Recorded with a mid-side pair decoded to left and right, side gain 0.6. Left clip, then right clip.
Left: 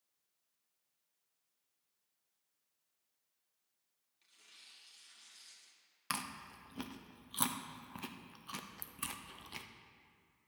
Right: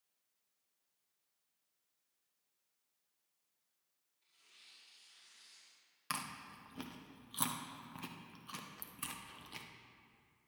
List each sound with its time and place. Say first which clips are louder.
4.2 s tearing paper: left 3 dB; 70° left, 2.5 m
6.1 s chewing: left 1 dB; 15° left, 0.8 m